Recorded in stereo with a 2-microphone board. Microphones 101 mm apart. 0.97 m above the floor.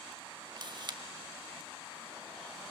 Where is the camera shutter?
45° right (ahead or behind), 1.1 m.